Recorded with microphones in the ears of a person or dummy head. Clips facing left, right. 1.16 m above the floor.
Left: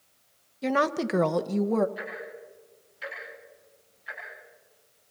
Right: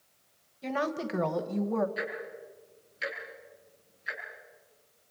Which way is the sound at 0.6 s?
70° left (ahead or behind).